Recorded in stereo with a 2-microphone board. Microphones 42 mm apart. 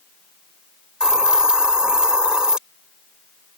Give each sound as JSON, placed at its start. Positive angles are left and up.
{"t": 1.0, "sound": "a hiss", "side_deg": -20}